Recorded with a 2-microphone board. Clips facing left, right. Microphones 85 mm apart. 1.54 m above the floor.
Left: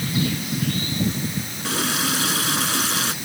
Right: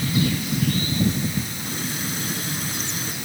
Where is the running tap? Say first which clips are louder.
Left 5 dB; 80° left.